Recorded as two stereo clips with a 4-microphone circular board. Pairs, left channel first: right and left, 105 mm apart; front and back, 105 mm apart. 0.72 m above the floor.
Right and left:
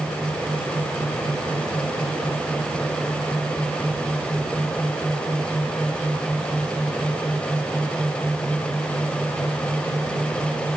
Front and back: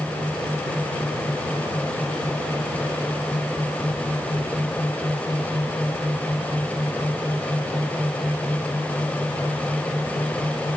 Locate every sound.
Only background noise.